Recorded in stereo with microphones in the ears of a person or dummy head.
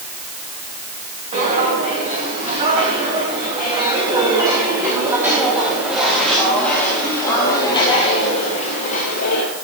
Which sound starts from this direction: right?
Footsteps, at 1.3 s.